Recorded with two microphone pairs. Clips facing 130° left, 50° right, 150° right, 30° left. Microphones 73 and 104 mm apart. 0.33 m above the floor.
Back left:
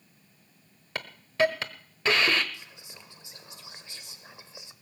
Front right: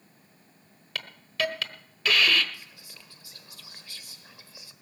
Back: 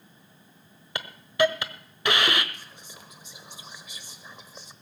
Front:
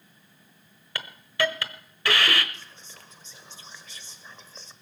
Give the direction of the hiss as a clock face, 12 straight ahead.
7 o'clock.